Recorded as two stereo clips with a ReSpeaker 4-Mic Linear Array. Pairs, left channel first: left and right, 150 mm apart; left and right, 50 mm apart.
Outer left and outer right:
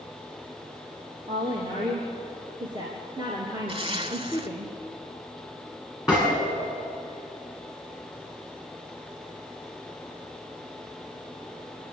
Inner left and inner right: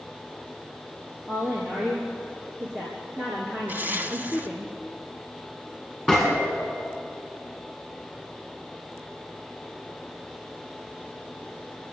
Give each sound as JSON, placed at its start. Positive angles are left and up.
{"t": 1.3, "sound": "a woman speaking", "side_deg": -35, "distance_m": 4.5}
{"t": 3.7, "sound": "a zipper", "side_deg": -40, "distance_m": 1.4}
{"t": 6.1, "sound": "a gunshot", "side_deg": 0, "distance_m": 8.0}